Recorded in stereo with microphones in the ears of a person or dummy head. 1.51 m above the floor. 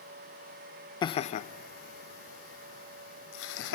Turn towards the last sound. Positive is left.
turn(degrees=80)